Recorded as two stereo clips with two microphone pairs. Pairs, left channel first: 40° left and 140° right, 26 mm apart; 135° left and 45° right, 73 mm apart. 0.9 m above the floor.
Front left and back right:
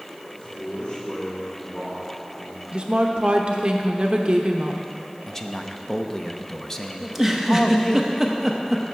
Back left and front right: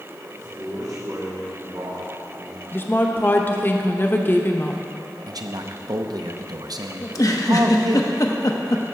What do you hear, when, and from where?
0.3 s a man speaking: 15° right, 2 m
2.7 s a woman speaking: 175° right, 0.8 m
5.3 s a man speaking: 30° right, 0.7 m
7.0 s a giggle: 145° left, 0.8 m